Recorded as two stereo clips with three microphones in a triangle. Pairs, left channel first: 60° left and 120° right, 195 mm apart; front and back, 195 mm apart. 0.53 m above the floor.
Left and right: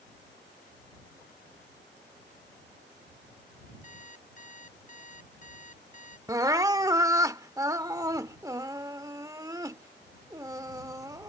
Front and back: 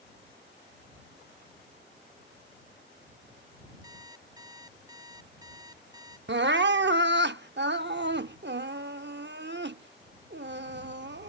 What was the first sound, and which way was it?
An alarm clock, 110° left.